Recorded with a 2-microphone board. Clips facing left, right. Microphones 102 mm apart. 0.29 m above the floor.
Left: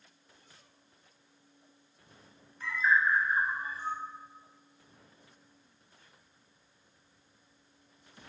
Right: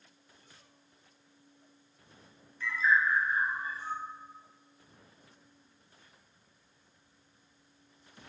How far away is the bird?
About 0.6 m.